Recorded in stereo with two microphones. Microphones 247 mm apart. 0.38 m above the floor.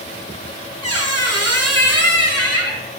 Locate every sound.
0.8 s a squeak: 80° right, 0.6 m